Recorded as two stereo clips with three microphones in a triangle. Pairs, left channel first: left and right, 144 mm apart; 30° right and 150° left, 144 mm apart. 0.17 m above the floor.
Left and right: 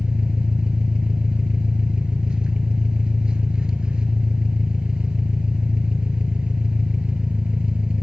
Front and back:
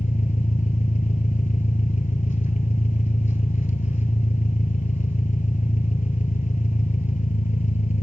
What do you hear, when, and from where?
0.0 s an engine running: 5° right, 0.7 m